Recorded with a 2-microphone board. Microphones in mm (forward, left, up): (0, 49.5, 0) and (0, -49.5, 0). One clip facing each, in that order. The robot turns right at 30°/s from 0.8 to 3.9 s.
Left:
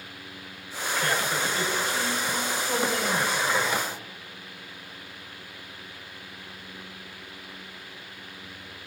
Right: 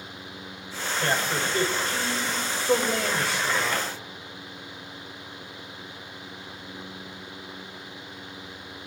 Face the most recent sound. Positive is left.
turn(degrees=-60)